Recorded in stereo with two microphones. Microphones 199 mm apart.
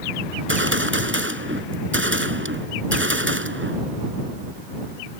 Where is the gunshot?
75° right (ahead or behind).